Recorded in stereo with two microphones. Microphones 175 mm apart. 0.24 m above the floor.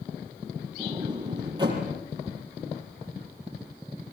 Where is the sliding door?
25° right (ahead or behind), 6 m.